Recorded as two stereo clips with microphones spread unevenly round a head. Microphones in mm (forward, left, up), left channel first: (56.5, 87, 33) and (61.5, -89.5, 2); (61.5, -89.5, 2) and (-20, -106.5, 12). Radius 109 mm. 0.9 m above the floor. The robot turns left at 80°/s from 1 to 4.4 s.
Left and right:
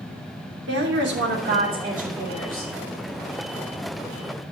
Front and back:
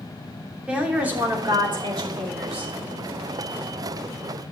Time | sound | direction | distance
0.7 | a woman speaking | 90° right | 3 m